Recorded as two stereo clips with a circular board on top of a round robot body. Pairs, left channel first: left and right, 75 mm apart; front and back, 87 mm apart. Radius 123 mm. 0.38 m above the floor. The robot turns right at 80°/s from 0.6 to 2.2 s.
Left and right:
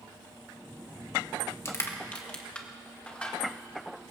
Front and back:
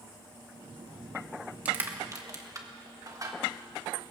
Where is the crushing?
115° left, 1.8 m; by 3.4 s 160° left, 1.8 m.